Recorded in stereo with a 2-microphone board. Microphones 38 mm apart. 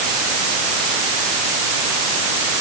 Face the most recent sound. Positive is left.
No sound to turn to.